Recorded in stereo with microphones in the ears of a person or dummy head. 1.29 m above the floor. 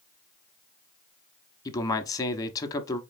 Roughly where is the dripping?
No dripping in this recording.